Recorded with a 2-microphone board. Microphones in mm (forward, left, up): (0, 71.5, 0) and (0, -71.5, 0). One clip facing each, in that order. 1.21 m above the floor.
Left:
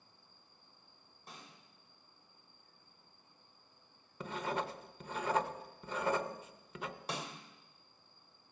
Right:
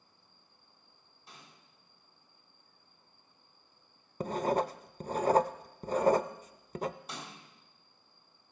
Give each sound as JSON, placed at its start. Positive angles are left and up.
{"t": 1.3, "sound": "a snare drum", "side_deg": 50, "distance_m": 6.0}
{"t": 4.2, "sound": "writing", "side_deg": -40, "distance_m": 0.5}
{"t": 7.1, "sound": "a snare drum", "side_deg": 70, "distance_m": 2.0}